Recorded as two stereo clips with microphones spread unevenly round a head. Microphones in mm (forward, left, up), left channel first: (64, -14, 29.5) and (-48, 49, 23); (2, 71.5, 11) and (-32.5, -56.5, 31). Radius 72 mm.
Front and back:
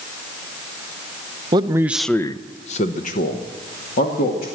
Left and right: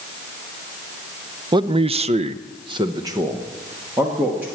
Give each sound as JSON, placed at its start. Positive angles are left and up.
{"t": 1.5, "sound": "a man speaking", "azimuth_deg": -165, "distance_m": 0.7}